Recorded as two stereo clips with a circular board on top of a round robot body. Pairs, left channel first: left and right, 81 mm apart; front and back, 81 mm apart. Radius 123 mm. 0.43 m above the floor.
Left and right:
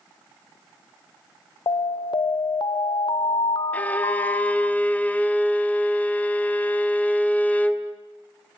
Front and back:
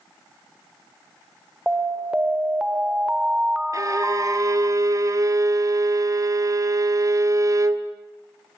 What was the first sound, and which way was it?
An alarm, 100° left.